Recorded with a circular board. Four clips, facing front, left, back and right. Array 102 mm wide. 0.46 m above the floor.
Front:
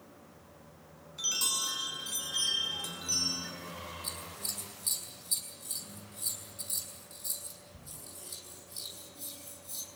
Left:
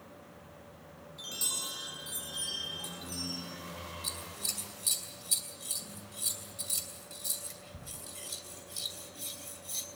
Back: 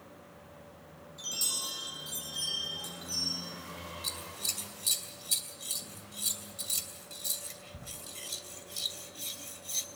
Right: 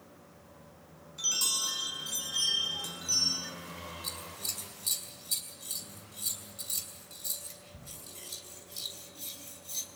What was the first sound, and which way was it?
A chime, 35° right.